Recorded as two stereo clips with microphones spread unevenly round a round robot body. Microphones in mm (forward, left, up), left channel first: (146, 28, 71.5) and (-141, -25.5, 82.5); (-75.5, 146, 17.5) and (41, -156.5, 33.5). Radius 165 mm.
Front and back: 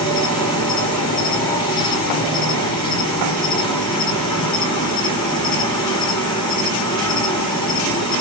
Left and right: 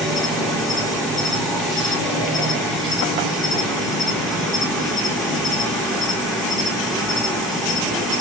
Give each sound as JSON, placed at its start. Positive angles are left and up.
{"t": 0.0, "sound": "an insect", "azimuth_deg": 30, "distance_m": 1.7}